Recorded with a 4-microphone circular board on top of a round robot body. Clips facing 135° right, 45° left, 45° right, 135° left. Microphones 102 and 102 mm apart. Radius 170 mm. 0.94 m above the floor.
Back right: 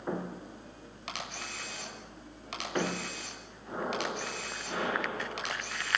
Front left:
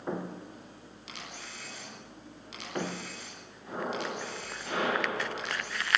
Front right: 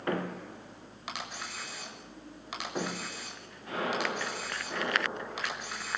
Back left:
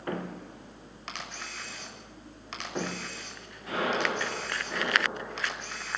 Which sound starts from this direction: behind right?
A camera shutter, at 1.1 s.